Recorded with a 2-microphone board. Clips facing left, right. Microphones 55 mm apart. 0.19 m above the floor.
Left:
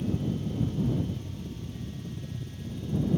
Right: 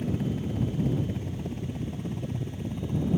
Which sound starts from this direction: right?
A helicopter, at 0.0 s.